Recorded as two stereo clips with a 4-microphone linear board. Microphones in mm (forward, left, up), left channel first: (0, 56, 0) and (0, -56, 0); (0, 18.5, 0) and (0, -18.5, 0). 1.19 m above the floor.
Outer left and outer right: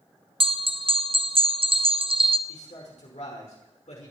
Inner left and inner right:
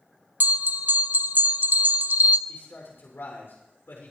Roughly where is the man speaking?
Left.